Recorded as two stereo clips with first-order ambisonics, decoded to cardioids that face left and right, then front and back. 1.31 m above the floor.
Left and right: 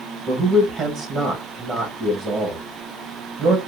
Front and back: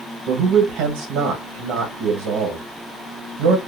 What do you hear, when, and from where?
0.3 s a man speaking: 160° right, 1.2 m